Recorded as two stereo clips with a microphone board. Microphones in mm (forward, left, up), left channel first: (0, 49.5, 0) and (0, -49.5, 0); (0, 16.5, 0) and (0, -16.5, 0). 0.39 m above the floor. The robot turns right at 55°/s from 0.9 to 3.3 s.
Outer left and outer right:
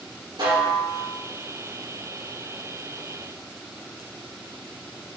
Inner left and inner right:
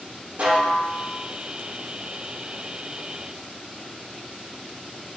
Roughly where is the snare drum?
Right.